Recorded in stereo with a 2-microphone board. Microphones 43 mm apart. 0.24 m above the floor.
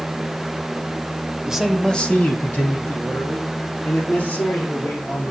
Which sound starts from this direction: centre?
A man speaking, at 1.4 s.